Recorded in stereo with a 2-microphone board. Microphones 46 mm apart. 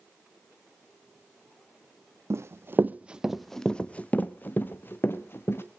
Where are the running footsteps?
65° right (ahead or behind), 0.6 m; by 5.6 s 50° left (ahead or behind), 1.5 m.